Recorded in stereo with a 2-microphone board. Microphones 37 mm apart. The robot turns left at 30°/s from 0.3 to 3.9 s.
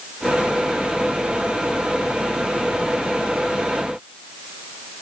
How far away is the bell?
I don't hear a bell.